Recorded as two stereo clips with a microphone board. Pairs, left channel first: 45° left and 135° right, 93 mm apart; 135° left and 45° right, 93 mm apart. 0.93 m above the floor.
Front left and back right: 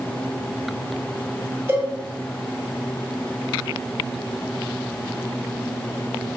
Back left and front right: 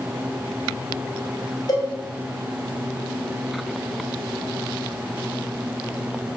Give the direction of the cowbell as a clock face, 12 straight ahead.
7 o'clock.